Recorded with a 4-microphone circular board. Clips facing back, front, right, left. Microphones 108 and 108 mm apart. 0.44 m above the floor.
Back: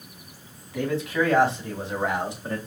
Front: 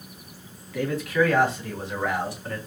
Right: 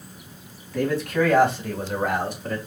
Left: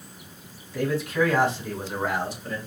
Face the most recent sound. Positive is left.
turn(degrees=-115)